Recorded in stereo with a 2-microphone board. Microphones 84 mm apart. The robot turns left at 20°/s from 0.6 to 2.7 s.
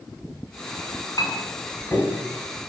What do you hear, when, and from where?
1.2 s a clink: 50° left (ahead or behind), 1.5 m; by 2.2 s 30° left (ahead or behind), 1.5 m